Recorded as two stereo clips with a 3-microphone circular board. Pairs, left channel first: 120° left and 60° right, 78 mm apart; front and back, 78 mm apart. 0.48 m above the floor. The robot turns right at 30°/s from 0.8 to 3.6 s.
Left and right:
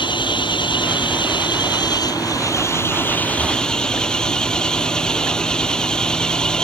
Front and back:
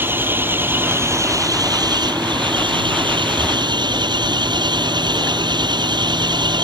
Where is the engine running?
115° left; by 6.7 s 160° right.